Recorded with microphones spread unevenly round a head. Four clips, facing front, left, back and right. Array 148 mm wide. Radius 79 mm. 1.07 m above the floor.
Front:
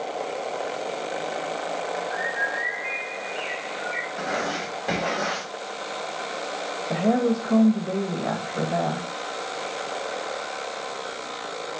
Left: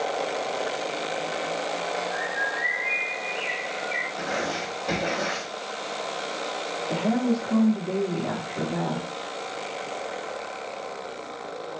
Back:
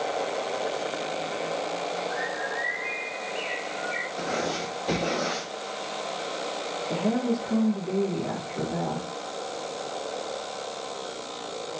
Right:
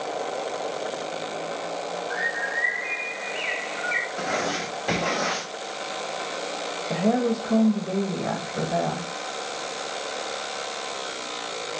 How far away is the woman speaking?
About 1.4 m.